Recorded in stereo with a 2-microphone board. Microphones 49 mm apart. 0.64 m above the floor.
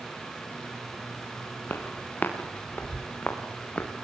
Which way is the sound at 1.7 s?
45° left (ahead or behind).